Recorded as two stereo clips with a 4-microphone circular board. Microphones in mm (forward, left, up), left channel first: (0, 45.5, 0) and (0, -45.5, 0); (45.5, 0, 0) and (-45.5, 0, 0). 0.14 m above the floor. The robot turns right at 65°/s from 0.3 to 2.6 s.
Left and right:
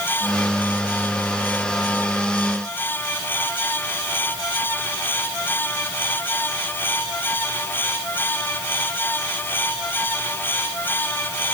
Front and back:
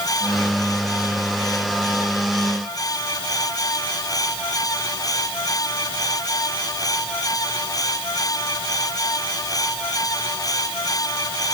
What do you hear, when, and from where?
Only background noise.